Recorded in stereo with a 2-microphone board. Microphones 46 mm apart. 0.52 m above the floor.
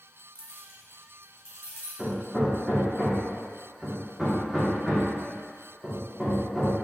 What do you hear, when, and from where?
0.3 s keys jangling: 60° left (ahead or behind), 0.7 m; by 1.9 s 70° left (ahead or behind), 1.6 m
2.0 s hammering: centre (ahead or behind), 1.0 m